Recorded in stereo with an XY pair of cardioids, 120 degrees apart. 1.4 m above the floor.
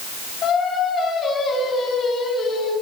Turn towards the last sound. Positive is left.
turn(degrees=50)